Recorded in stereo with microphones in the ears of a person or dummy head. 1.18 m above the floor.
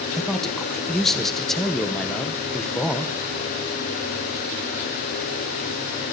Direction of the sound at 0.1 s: 5° left (ahead or behind).